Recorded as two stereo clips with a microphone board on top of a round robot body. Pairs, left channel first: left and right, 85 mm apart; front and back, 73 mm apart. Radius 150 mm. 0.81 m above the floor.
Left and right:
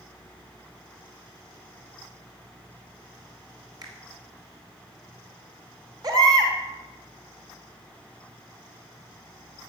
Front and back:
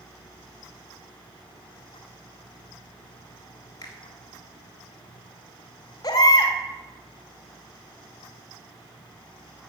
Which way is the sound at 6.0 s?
40° right.